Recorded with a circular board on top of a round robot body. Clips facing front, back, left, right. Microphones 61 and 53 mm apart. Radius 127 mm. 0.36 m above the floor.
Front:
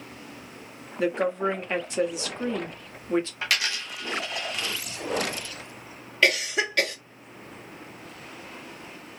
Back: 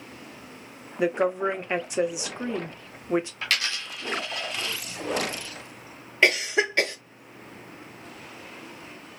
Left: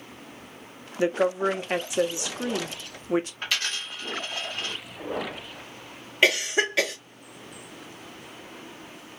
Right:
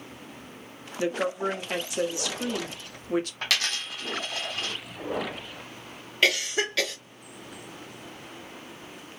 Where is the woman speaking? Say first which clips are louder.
Back 1 dB, left 4 dB; 130° left, 0.9 m.